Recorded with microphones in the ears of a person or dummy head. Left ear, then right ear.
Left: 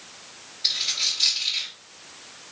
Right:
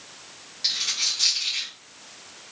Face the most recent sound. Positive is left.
turn(degrees=-30)  # may be behind; listen again after turning